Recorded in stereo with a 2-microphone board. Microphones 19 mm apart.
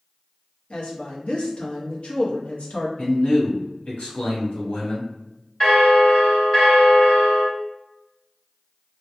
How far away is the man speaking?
About 1.3 m.